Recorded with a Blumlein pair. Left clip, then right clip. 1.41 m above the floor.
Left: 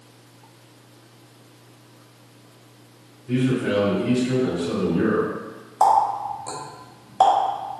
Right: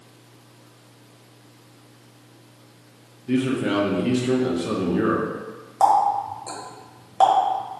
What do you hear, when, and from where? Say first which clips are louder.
3.3 s a man speaking: even; 65° right, 0.9 m
5.8 s a running tap: even; 5° right, 1.1 m